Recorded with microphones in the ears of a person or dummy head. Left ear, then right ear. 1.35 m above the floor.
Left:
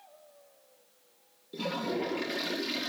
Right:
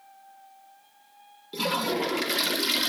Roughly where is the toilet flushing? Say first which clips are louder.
Right 6 dB; right.